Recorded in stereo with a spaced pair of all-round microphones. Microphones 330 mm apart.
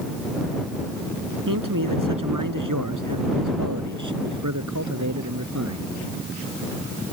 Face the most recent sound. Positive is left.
turn(degrees=-55)  # may be behind; listen again after turning